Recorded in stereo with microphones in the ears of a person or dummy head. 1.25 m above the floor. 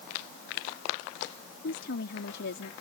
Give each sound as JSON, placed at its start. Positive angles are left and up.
{"t": 1.6, "sound": "a woman speaking", "side_deg": 60}